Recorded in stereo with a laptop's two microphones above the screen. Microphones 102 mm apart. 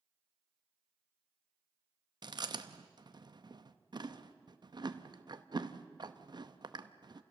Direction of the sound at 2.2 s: 50° right (ahead or behind).